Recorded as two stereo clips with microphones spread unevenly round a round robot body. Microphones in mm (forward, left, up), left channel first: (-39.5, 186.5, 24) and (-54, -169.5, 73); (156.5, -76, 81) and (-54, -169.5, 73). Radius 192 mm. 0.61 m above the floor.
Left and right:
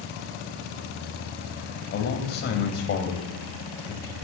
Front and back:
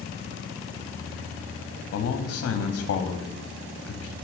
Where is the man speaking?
45° left, 0.9 m.